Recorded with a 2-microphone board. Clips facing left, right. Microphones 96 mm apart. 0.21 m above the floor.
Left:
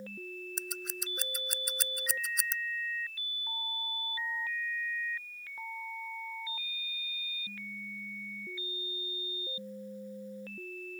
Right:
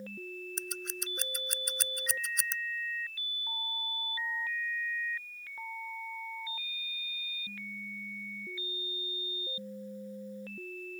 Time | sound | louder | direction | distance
0.6 | scissors | right 1 dB | centre (ahead or behind) | ?